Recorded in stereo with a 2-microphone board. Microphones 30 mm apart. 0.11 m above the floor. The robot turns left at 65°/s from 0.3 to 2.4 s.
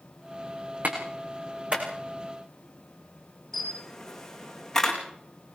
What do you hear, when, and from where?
0.8 s a clap: 75° right (ahead or behind), 8 m; by 1.9 s 40° right (ahead or behind), 8 m
3.5 s a camera shutter: 15° left (ahead or behind), 5.5 m